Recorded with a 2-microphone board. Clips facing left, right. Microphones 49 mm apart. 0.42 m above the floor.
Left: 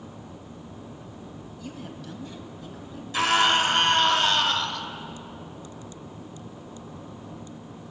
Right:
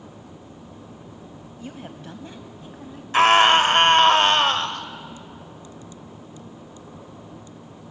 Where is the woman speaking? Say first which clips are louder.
Right 2 dB; 30° right (ahead or behind), 3 m.